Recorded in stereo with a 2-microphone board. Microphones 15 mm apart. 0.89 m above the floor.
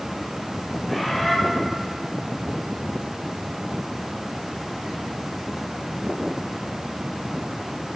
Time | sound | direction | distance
0.9 | a bird | 10° left (ahead or behind) | 3 m